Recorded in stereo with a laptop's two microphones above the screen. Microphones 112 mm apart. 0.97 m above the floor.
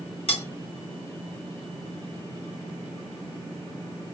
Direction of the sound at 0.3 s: 65° left (ahead or behind).